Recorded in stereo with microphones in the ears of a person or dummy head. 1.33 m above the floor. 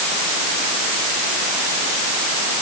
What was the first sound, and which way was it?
Only background noise.